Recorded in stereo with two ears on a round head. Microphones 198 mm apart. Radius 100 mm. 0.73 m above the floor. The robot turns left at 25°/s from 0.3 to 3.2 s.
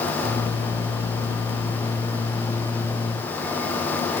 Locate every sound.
Only background noise.